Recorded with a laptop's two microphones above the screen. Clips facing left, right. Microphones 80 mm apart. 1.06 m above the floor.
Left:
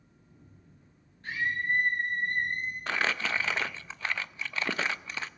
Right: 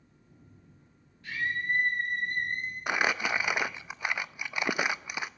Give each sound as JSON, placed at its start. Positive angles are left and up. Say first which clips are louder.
{"t": 1.2, "sound": "a scream", "louder": "left 1 dB", "side_deg": 40, "distance_m": 7.0}
{"t": 2.9, "sound": "crumpling", "louder": "right 2 dB", "side_deg": -15, "distance_m": 0.5}